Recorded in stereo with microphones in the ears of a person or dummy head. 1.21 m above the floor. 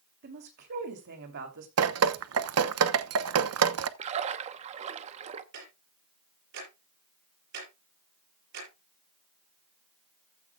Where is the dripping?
70° right (ahead or behind), 1.0 m.